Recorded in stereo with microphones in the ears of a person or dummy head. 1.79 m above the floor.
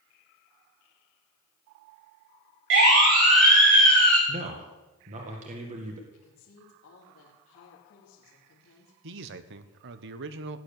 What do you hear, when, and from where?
2.7 s a siren: 70° right (ahead or behind), 4.5 m; by 4.2 s 45° right (ahead or behind), 4 m
4.3 s a man speaking: 40° right (ahead or behind), 1.9 m
6.1 s a woman speaking: 80° left, 3 m
9.0 s a man speaking: 70° right (ahead or behind), 1.1 m